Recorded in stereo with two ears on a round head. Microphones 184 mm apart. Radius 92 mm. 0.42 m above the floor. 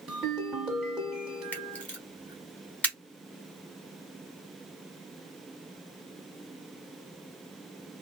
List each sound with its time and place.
0.1 s a ringtone: 5° right (ahead or behind), 1.3 m
1.5 s a camera shutter: 5° left (ahead or behind), 1.0 m